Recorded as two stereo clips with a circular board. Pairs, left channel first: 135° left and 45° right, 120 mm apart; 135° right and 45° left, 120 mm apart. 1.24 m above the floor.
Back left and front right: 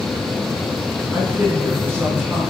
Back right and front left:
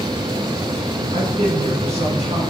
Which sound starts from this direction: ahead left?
A man speaking, at 1.1 s.